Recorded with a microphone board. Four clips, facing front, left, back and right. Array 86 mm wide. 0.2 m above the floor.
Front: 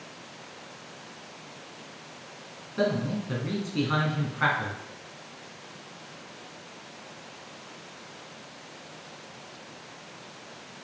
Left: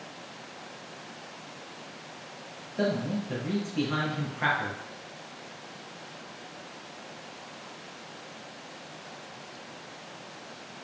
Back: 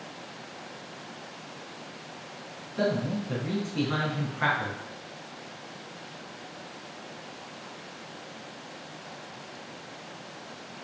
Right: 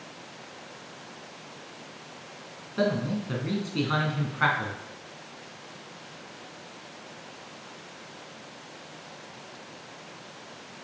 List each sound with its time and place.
2.8 s a man speaking: 75° right, 2.5 m